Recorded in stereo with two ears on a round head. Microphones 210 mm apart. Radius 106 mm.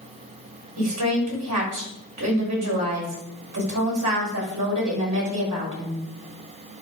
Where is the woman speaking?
70° right (ahead or behind), 6.5 m.